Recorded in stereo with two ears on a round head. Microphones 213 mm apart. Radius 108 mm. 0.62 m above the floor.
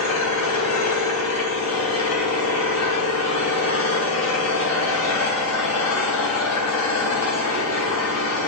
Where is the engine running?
70° left (ahead or behind), 4 m.